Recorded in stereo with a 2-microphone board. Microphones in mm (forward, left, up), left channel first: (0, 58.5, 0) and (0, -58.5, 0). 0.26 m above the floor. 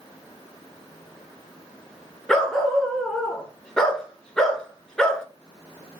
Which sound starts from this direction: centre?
A dog barking, at 2.3 s.